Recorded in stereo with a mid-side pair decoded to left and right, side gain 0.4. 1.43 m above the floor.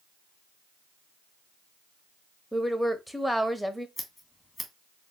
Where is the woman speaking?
5° left, 0.7 m.